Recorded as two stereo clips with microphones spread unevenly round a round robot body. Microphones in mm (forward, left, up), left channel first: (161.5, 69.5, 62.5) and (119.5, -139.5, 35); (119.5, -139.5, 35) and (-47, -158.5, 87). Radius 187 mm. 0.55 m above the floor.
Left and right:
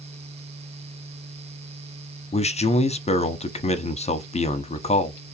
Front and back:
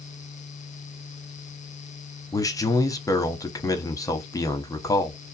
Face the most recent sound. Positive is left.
turn(degrees=25)